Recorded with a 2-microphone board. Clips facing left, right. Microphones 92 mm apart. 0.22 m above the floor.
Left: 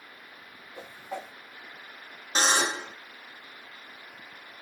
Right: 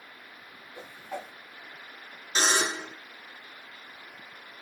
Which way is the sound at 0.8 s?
20° left (ahead or behind).